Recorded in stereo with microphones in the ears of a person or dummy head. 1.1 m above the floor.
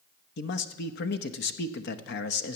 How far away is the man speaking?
About 0.9 m.